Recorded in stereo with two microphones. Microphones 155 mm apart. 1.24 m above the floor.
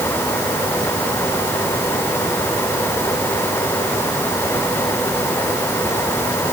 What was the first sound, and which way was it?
Only background noise.